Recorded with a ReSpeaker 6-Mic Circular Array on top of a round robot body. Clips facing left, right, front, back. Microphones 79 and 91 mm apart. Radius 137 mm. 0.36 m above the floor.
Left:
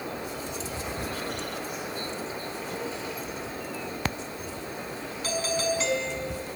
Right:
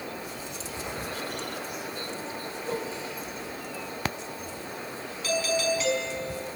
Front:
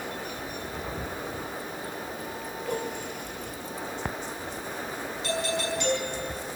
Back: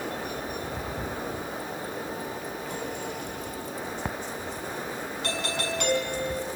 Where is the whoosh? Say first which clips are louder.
Right 4 dB, front 6 dB; 35° right, 6 m.